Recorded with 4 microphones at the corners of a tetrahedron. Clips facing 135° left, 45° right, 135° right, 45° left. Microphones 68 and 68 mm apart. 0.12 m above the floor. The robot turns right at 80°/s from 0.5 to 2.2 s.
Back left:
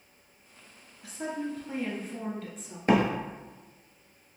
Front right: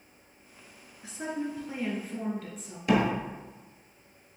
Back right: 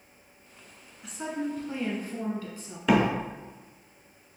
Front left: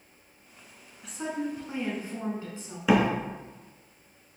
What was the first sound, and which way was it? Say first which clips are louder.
A woman speaking: even, even; 50° right.